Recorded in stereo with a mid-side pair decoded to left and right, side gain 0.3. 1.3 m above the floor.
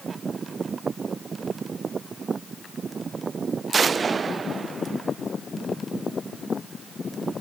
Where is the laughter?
I don't hear laughter.